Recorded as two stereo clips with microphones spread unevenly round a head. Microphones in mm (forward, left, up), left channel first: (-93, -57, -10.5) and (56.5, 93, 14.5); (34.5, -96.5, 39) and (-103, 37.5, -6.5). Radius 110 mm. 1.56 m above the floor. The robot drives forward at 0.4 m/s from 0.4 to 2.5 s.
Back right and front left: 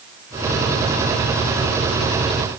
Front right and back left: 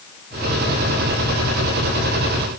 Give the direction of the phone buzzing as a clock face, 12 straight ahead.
No phone buzzing in this recording.